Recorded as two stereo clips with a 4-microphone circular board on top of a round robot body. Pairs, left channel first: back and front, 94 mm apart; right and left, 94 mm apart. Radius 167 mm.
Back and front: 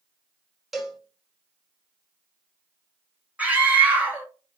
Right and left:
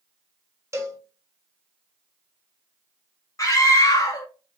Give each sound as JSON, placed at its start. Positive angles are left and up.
{"t": 0.7, "sound": "a cowbell", "azimuth_deg": 85, "distance_m": 0.9}
{"t": 3.4, "sound": "a scream", "azimuth_deg": -65, "distance_m": 1.2}